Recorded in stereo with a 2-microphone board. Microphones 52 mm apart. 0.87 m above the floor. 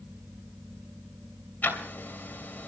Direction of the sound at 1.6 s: 35° left (ahead or behind).